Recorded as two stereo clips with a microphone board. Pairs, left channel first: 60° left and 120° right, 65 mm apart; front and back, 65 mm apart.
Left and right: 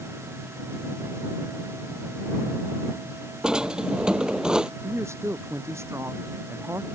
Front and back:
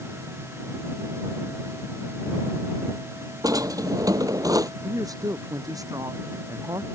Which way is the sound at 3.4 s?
165° left.